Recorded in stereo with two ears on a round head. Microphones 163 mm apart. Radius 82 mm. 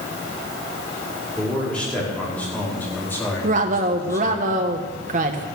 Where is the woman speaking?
40° right (ahead or behind), 1.2 m.